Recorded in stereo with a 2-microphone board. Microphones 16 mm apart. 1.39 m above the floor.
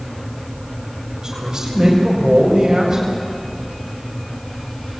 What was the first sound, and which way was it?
A man speaking, 35° right (ahead or behind).